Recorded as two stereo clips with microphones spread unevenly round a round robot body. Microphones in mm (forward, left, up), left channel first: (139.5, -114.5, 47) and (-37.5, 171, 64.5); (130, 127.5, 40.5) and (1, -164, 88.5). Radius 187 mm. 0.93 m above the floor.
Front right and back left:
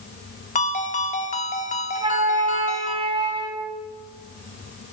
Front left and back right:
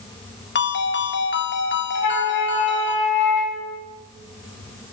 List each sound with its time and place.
0.6 s a ringtone: 10° left, 1.9 m
1.9 s a flute: 45° left, 2.5 m